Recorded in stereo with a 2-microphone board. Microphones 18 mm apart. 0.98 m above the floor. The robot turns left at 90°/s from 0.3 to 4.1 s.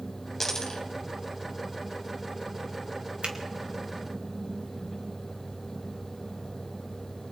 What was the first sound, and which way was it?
A dropped coin, 150° left.